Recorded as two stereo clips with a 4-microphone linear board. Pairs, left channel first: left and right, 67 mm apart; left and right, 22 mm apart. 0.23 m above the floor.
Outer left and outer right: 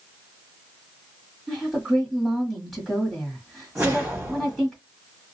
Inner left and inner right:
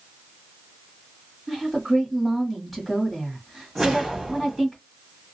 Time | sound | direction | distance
1.5 | a woman speaking | 5° left (ahead or behind) | 1.3 m
3.8 | a whoosh | 25° right (ahead or behind) | 1.7 m